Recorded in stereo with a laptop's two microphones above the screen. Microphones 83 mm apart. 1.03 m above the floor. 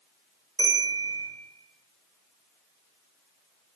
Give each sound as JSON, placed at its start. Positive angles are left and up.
{"t": 0.6, "sound": "a bell", "side_deg": 40, "distance_m": 0.9}